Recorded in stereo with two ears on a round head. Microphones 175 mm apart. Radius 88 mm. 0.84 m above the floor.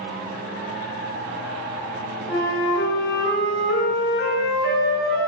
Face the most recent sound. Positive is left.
turn(degrees=55)  # may be behind; listen again after turning